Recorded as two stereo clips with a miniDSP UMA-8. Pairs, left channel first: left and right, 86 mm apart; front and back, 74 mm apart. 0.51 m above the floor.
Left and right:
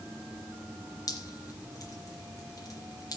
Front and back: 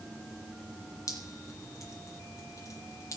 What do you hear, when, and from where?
1.1 s dripping: 40° left, 3 m